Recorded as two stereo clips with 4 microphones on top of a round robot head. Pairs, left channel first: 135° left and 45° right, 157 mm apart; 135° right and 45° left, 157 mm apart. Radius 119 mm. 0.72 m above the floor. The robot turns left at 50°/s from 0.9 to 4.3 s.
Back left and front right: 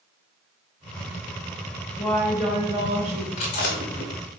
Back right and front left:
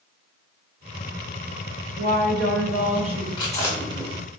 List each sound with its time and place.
2.0 s a woman speaking: 50° left, 1.0 m; by 3.3 s 15° right, 1.0 m
3.4 s chewing: 165° left, 0.5 m; by 4.1 s 130° left, 0.5 m